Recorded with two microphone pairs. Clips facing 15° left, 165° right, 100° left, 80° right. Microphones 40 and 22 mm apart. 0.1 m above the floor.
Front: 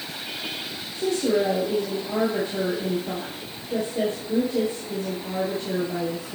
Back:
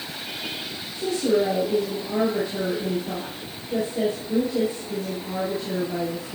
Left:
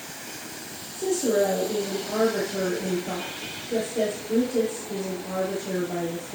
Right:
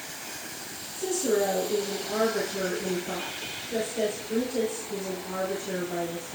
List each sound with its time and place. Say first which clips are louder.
0.9 s a woman speaking: back 1 dB, left 3 dB; 55° left, 5 m